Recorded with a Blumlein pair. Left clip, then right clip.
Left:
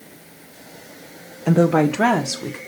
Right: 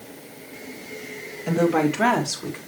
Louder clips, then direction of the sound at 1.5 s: Left 4 dB; 30° left.